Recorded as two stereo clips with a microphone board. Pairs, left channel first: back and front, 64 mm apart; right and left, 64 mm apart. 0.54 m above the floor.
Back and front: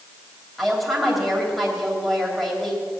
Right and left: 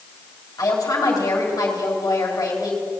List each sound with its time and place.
0.6 s a woman speaking: 90° right, 3 m